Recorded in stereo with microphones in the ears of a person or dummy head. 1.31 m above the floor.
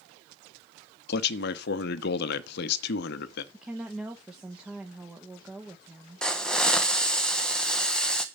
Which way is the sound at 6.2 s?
5° left (ahead or behind).